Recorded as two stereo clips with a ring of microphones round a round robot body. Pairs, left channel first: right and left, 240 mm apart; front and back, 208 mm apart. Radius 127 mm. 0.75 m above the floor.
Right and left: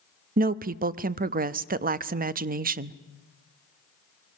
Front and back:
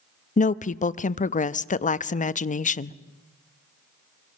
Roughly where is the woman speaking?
Ahead left.